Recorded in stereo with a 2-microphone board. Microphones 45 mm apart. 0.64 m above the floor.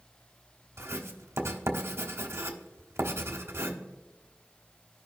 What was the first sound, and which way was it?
Writing, 70° right (ahead or behind).